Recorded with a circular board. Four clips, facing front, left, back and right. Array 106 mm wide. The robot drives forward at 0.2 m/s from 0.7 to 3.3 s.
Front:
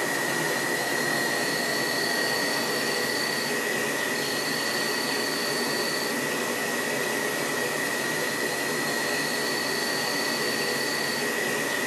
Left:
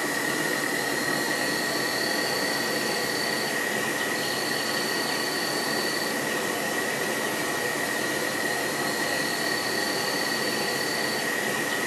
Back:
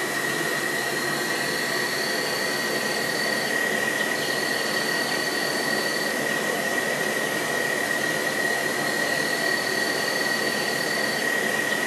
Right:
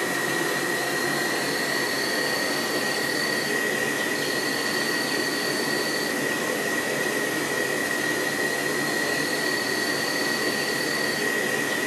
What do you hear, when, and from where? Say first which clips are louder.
0.0 s an insect: right 2 dB, even; 125° right, 1.4 m; by 11.9 s 140° right, 1.8 m